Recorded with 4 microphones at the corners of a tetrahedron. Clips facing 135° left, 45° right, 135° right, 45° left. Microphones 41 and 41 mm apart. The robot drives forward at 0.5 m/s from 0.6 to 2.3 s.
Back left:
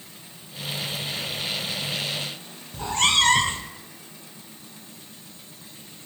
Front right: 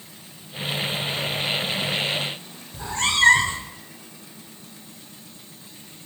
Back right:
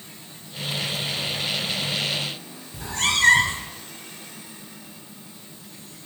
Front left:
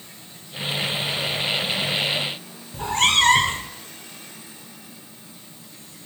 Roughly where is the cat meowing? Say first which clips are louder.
Back left 1 dB, front left 5 dB; left.